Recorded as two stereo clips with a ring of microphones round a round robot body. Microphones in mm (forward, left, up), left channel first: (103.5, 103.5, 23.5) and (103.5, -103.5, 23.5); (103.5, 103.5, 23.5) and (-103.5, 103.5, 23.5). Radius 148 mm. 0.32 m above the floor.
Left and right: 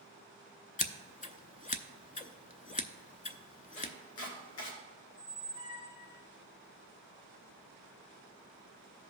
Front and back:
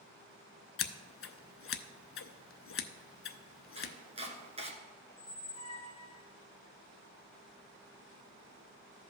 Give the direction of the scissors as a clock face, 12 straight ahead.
11 o'clock.